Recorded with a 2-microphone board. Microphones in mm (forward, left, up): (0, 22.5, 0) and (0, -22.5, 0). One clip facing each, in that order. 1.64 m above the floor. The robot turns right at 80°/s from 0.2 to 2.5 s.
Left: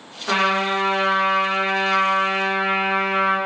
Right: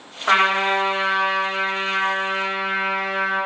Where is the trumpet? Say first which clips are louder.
Right 2 dB; 55° right, 5 m; by 3.4 s 125° left, 5 m.